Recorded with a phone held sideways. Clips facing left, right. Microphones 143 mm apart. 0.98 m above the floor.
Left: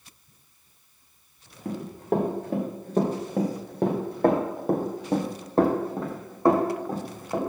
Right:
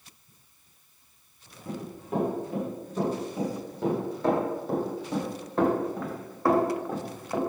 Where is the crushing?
I don't hear crushing.